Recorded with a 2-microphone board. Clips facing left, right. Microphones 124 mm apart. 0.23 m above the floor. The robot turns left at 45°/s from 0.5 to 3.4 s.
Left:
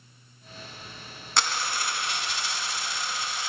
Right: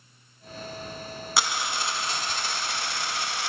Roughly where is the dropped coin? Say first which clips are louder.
Even; ahead.